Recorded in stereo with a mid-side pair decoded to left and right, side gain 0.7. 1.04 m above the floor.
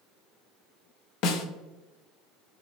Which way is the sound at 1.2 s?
60° left.